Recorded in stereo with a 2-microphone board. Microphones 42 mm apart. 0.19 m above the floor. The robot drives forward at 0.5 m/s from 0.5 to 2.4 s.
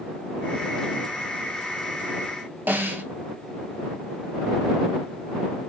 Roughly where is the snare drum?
Right.